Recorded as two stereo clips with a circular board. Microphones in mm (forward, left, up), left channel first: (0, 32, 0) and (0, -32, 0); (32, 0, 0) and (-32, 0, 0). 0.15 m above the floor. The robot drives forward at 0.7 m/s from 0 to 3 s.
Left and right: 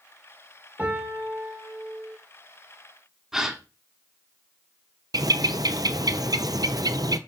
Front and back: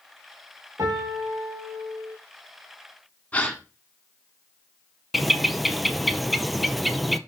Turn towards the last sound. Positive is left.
turn(degrees=-90)